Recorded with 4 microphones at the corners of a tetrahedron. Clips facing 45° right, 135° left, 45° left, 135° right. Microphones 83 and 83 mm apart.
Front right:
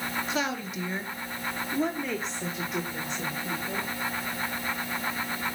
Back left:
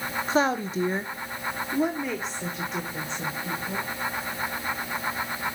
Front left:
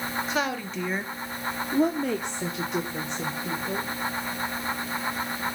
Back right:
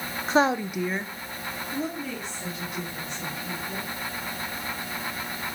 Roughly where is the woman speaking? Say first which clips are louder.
Back left 10 dB, back right 10 dB; behind.